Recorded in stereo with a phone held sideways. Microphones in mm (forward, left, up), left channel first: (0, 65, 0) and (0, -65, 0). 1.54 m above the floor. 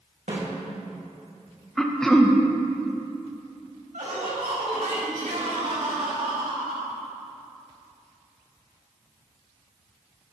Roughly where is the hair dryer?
I don't hear a hair dryer.